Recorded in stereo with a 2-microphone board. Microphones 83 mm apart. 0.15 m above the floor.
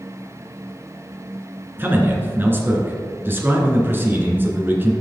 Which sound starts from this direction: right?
A man speaking, at 1.8 s.